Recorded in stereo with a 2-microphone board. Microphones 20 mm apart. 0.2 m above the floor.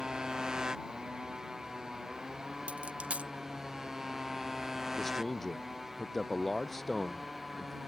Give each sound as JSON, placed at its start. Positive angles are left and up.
{"t": 0.0, "sound": "a motorcycle", "side_deg": -30}
{"t": 2.7, "sound": "a dropped coin", "side_deg": -80}
{"t": 5.0, "sound": "a man speaking", "side_deg": 15}